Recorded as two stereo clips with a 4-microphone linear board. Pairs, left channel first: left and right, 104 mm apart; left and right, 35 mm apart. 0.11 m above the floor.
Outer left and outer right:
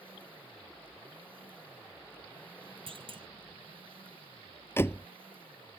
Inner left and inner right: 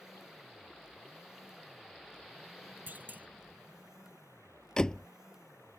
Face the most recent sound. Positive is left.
turn(degrees=25)  # may be behind; listen again after turning